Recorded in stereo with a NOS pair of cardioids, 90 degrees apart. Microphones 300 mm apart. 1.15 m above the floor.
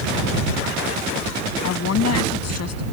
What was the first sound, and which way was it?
A woman speaking, 55° left.